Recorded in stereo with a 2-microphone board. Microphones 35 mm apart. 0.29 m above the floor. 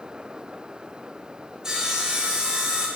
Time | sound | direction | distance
1.6 | sawing | 20° right (ahead or behind) | 0.8 m